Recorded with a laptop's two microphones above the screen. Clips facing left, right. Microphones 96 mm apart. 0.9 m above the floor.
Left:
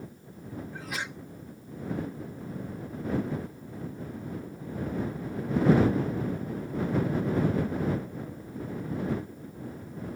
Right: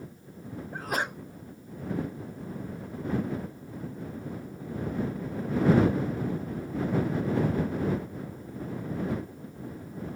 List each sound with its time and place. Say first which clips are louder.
0.7 s a sneeze: right 9 dB; 45° right (ahead or behind)